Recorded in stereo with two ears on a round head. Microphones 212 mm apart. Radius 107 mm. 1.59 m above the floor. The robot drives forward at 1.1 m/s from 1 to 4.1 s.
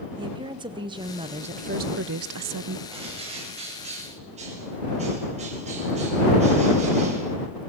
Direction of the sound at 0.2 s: 20° right (ahead or behind).